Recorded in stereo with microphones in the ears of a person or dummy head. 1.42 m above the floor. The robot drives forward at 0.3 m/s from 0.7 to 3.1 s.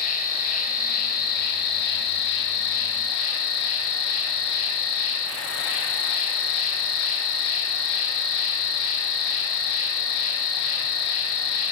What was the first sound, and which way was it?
An insect, 45° left (ahead or behind).